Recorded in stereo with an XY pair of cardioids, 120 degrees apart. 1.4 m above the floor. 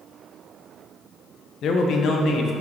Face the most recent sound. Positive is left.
turn(degrees=60)